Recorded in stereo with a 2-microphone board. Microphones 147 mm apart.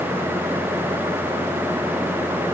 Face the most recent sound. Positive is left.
No sound to turn to.